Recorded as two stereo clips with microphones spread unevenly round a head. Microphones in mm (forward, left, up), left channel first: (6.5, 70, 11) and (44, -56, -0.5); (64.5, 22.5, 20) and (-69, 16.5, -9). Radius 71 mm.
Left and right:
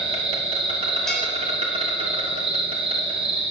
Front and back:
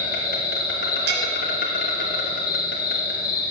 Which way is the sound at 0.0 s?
30° right.